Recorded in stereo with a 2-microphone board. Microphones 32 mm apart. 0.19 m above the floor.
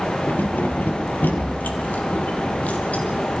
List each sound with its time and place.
0.3 s keys jangling: 70° left (ahead or behind), 3.5 m; by 3.0 s 45° left (ahead or behind), 5 m